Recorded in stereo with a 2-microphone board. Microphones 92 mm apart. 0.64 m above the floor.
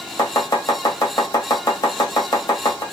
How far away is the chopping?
About 1.0 m.